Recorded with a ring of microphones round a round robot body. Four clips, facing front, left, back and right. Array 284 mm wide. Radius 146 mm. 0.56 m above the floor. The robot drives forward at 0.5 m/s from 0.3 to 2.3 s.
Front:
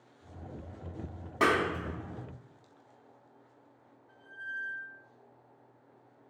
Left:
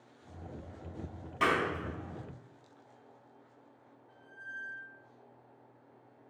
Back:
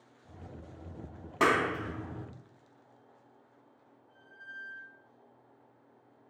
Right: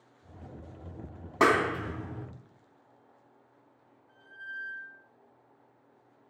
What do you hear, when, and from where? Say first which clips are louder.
1.4 s a clap: right 6 dB, even; 95° right, 0.7 m; by 2.3 s 130° right, 0.9 m
4.1 s a squeak: right 3 dB, front 7 dB; 20° left, 3 m